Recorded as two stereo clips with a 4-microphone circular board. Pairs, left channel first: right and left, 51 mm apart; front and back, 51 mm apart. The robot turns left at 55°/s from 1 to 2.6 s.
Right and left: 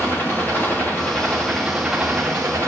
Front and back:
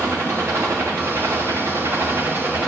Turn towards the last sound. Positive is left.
turn(degrees=125)